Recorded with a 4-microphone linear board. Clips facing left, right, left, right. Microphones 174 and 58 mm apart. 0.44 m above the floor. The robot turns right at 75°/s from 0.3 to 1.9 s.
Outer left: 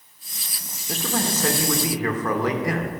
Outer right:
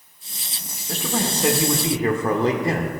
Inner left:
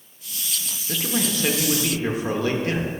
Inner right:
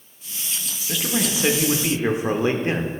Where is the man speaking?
5° left (ahead or behind), 0.8 m; by 3.0 s 25° right (ahead or behind), 0.8 m.